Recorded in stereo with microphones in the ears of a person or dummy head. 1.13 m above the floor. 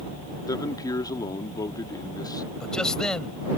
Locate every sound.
0.5 s a man speaking: 30° left (ahead or behind)
2.6 s a man speaking: 5° right (ahead or behind)